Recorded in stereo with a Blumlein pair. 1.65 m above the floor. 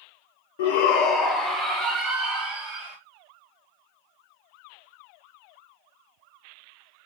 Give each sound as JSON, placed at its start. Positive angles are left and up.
{"t": 0.6, "sound": "a shout", "azimuth_deg": 55, "distance_m": 0.5}